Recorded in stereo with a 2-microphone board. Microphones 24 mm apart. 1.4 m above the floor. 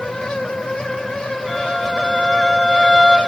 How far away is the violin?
About 2.5 m.